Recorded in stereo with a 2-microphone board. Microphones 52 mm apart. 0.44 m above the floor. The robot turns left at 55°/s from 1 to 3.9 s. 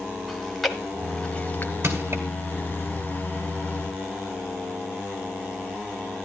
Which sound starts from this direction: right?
Crushing, at 1.8 s.